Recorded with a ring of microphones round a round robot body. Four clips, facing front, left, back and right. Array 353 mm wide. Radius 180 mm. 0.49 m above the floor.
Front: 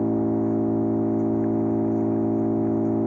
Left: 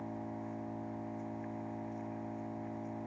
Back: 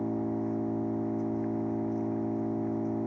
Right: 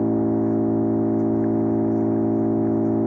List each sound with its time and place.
0.0 s an engine running: 65° right